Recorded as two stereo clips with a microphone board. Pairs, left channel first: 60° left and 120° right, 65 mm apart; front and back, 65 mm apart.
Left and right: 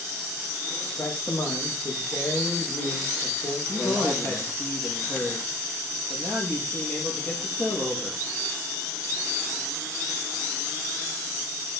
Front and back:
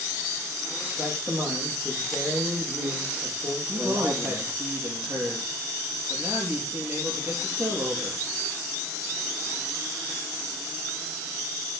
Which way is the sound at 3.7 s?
125° left.